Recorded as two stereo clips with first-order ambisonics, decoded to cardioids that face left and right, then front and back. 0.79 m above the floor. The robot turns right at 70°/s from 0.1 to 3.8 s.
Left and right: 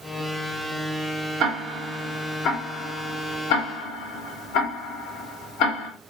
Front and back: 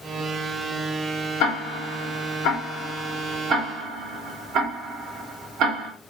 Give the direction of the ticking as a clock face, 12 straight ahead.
1 o'clock.